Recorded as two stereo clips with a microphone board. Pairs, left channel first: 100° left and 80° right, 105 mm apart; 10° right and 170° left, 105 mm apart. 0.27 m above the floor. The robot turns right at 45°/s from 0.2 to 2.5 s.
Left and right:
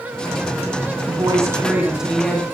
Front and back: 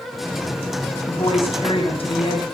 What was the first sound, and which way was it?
A woman speaking, 40° right.